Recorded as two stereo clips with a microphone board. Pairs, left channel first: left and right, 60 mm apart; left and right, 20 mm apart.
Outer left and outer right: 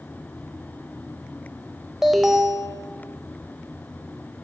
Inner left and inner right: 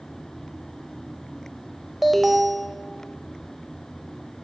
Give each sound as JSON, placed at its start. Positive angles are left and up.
{"t": 2.0, "sound": "an alarm", "side_deg": -5, "distance_m": 0.7}